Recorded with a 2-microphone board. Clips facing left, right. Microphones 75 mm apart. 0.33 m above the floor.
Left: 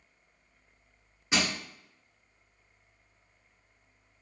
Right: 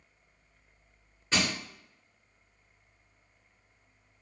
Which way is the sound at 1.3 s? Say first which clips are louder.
Even; 10° left (ahead or behind).